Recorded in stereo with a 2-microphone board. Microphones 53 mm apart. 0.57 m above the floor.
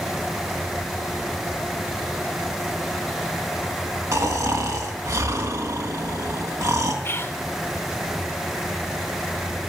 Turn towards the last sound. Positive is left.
turn(degrees=45)  # may be behind; listen again after turning